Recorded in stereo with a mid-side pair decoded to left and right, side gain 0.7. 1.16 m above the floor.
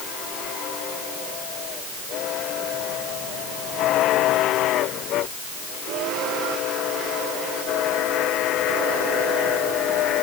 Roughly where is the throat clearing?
I don't hear throat clearing.